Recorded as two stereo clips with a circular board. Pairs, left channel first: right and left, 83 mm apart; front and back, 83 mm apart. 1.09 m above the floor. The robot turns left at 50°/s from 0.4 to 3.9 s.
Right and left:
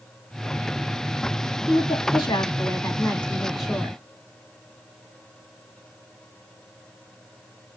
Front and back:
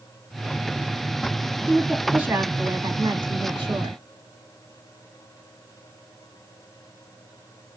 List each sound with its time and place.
1.7 s a woman speaking: 85° right, 1.7 m; by 4.0 s 165° left, 1.7 m